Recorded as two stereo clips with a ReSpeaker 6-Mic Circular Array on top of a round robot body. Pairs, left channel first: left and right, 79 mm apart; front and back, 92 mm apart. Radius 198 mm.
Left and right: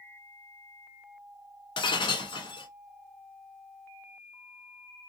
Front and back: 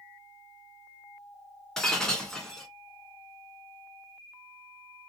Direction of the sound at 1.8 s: 85° left.